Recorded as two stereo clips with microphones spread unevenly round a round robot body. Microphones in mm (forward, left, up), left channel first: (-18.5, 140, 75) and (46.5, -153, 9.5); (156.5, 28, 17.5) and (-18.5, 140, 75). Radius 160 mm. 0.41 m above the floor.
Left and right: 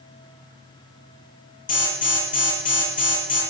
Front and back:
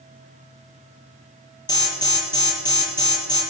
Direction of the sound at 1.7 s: 40° left.